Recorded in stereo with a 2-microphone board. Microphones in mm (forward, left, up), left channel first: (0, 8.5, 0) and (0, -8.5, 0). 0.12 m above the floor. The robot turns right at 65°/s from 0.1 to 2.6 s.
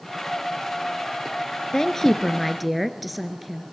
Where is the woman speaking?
125° left, 1.7 m; by 3.6 s straight behind, 1.7 m.